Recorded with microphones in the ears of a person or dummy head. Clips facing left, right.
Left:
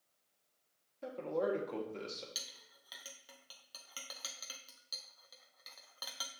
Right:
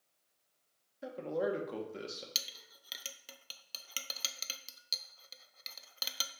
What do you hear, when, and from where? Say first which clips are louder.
1.0 s a man speaking: right 1 dB; 10° right (ahead or behind), 1.2 m
2.4 s a clink: right 2 dB; 40° right (ahead or behind), 0.5 m